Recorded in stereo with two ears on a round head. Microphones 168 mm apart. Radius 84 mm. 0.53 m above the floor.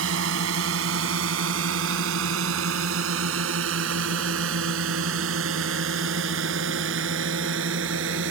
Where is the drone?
75° right (ahead or behind); by 8.3 s 70° right (ahead or behind).